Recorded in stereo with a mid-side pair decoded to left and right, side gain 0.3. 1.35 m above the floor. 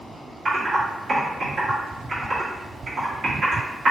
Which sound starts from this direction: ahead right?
Typing on a keyboard, at 0.5 s.